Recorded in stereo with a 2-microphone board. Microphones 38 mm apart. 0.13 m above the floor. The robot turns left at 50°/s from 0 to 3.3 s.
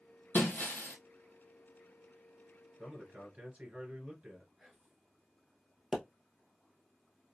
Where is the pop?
5° right (ahead or behind), 1.1 m.